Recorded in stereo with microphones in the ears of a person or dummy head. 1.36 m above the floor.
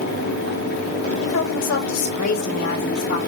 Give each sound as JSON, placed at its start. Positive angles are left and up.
{"t": 1.2, "sound": "a woman speaking", "side_deg": 70, "distance_m": 2.0}